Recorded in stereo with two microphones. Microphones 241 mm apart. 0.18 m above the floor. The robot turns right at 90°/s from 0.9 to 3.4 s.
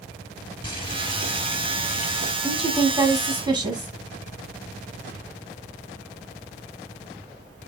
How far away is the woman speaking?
About 1.2 m.